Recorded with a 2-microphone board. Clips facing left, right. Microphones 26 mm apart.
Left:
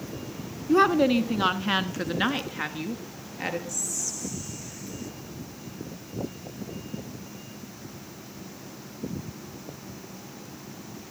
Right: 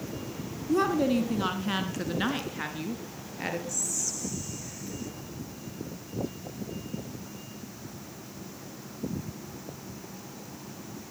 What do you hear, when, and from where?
0.7 s a woman speaking: 40° left (ahead or behind), 1.6 m; by 3.6 s 5° left (ahead or behind), 3 m
3.7 s whispering: centre (ahead or behind), 2 m